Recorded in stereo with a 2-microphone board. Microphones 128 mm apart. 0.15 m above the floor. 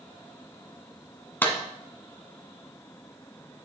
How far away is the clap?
About 1.3 m.